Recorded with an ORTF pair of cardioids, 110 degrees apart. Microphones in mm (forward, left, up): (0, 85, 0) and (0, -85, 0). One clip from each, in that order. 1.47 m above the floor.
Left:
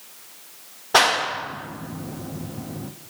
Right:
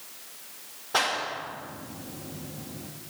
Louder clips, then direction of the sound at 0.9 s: Left 9 dB; 50° left.